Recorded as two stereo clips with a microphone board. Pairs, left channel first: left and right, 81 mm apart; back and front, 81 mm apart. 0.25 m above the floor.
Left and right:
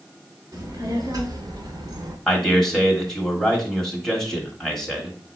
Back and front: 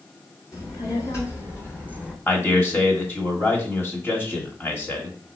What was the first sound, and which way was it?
A child speaking, 135° right.